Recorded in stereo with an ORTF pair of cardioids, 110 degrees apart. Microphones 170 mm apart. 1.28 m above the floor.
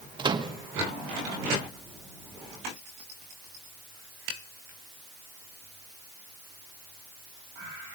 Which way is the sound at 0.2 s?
30° right.